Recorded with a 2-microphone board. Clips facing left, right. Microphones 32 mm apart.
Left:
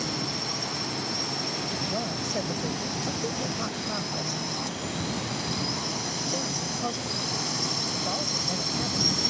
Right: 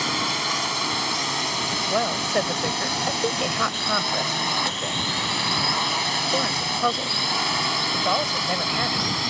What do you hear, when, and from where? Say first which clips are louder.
0.0 s a drone: right 8 dB; 75° right (ahead or behind); by 9.3 s 50° right (ahead or behind)
1.9 s a woman speaking: right 8 dB; 65° right (ahead or behind)